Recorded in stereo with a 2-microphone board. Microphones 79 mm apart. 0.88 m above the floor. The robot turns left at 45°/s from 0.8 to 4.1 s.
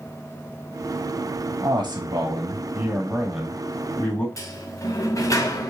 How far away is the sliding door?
About 0.9 m.